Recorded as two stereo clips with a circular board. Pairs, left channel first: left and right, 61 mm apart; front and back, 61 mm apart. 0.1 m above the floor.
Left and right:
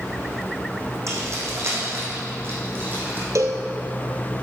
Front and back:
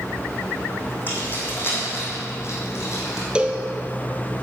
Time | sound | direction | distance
1.1 | keys jangling | 55° right | 4 m
3.4 | a cowbell | 105° right | 1.0 m